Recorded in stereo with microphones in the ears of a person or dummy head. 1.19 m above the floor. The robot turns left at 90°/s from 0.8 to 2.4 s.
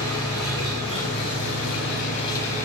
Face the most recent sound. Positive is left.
turn(degrees=15)